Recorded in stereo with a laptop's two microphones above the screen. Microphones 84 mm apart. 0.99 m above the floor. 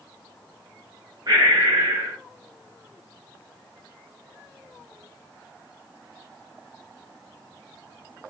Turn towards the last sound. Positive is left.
turn(degrees=-50)  # may be behind; listen again after turning